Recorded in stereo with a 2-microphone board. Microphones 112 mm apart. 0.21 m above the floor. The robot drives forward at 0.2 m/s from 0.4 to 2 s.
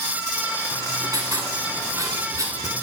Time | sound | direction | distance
0.7 | writing | 35° right (ahead or behind) | 1.8 m